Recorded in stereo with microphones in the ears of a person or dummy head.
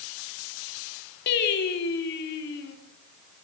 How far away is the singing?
About 3.5 m.